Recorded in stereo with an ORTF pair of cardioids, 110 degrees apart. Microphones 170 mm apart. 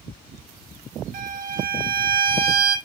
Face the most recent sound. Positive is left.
turn(degrees=-65)